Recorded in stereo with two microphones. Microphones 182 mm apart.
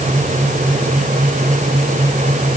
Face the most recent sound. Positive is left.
No sound to turn to.